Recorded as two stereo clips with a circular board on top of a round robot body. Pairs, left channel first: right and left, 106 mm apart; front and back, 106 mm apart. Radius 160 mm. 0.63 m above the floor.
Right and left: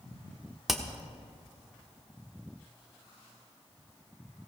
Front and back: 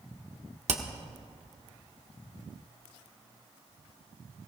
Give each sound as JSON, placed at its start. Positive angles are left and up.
{"t": 0.7, "sound": "hammering", "azimuth_deg": 175, "distance_m": 1.2}